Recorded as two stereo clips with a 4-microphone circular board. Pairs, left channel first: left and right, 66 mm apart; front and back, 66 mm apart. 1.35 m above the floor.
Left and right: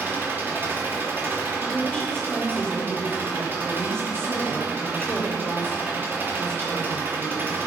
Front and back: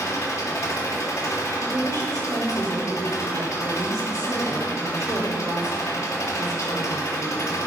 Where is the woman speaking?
165° left, 3.5 m.